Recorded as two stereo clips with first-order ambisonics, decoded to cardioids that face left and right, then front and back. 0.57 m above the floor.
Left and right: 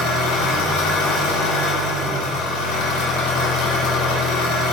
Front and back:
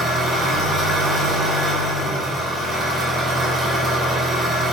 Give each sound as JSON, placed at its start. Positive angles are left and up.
{"t": 0.0, "sound": "an engine running", "azimuth_deg": 105, "distance_m": 1.2}